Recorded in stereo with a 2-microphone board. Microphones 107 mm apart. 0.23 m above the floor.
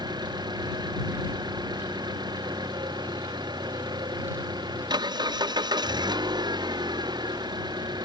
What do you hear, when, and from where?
0.0 s an engine running: 40° right (ahead or behind)